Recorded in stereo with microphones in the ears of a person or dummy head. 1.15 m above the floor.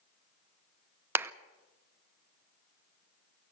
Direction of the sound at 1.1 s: 10° right (ahead or behind).